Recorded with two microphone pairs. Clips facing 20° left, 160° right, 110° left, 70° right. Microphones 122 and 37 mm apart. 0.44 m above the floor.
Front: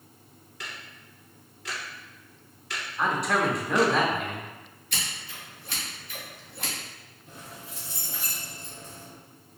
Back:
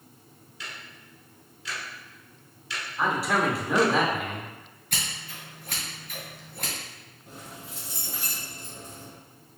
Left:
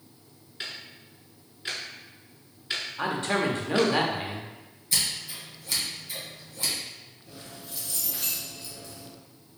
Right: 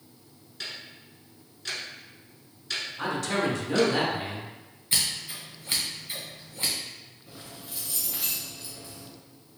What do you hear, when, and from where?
0.6 s ticking: 45° left, 1.0 m
3.0 s a man speaking: 115° left, 0.8 m
4.9 s scissors: 125° right, 1.8 m
7.3 s keys jangling: 145° right, 1.5 m